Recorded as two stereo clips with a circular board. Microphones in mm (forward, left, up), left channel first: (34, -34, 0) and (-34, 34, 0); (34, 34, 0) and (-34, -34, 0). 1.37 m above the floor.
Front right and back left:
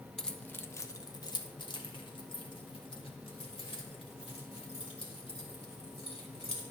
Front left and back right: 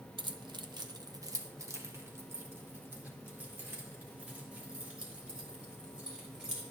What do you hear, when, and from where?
0.2 s keys jangling: 130° right, 0.6 m; by 6.6 s 55° right, 3.5 m